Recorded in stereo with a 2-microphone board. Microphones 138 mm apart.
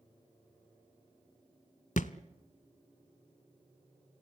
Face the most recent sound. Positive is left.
turn(degrees=65)  # may be behind; listen again after turning